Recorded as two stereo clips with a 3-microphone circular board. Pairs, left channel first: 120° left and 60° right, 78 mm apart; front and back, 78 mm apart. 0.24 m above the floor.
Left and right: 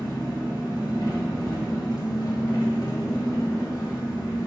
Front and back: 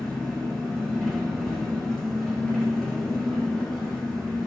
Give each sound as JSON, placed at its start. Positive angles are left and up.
{"t": 0.0, "sound": "an engine running", "azimuth_deg": 90, "distance_m": 1.5}